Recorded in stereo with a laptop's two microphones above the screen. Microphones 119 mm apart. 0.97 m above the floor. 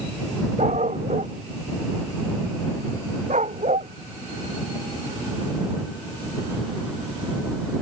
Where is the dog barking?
90° right.